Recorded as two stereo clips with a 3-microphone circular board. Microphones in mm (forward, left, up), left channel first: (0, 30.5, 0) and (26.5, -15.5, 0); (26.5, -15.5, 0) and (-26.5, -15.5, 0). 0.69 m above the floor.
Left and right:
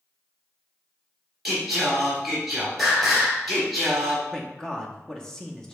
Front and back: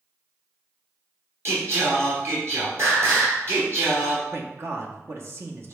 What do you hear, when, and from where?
1.4 s singing: 145° right, 2 m
4.3 s a man speaking: 165° right, 0.8 m